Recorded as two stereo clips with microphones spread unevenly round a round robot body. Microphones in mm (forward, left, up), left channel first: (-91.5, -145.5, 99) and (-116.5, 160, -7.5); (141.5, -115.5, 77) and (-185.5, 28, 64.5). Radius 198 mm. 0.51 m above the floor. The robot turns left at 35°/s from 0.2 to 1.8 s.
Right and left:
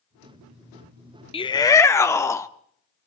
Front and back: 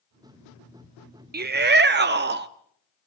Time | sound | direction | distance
1.3 | a shout | 175° right | 0.7 m